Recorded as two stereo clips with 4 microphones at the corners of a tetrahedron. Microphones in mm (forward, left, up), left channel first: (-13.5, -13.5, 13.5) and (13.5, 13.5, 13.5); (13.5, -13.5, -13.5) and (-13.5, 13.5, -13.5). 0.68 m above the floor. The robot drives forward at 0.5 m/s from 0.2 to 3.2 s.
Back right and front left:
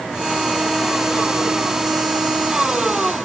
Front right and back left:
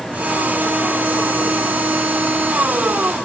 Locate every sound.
Only background noise.